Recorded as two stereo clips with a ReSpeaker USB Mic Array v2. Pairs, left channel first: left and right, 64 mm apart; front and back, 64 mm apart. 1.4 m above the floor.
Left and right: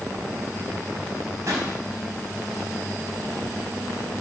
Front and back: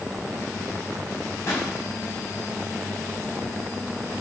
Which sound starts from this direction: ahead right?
A pop, at 1.5 s.